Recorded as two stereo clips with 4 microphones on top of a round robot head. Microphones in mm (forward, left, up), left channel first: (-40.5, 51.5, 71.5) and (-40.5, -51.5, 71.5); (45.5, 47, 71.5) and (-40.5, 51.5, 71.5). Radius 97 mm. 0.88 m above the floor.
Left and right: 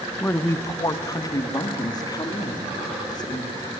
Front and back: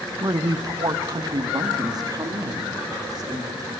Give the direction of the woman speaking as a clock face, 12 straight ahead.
7 o'clock.